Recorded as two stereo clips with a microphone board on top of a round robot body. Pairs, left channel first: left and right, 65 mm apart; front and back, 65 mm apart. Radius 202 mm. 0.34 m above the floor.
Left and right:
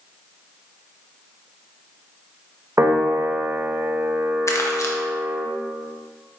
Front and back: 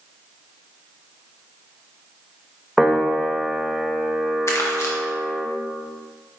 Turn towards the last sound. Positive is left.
turn(degrees=45)